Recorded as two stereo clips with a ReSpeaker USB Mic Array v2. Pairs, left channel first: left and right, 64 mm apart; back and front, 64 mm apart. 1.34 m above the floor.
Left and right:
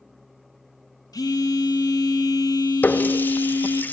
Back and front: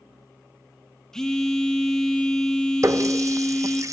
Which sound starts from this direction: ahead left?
A running tap, at 2.8 s.